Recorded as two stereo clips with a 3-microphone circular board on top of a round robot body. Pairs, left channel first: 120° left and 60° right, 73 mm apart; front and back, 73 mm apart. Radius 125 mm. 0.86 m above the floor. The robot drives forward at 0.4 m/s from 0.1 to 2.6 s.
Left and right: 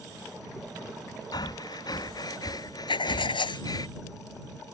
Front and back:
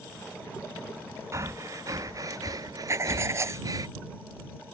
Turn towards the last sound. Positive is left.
turn(degrees=125)